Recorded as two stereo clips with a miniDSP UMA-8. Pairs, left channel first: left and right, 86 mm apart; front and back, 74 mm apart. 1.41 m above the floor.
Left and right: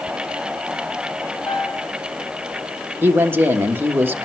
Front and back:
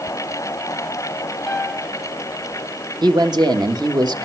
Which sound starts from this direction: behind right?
A man speaking, at 3.0 s.